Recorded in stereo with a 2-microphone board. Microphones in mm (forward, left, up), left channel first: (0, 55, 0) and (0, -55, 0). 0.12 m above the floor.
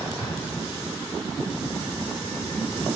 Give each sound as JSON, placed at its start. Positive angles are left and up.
{"t": 0.2, "sound": "an explosion", "side_deg": 25, "distance_m": 5.0}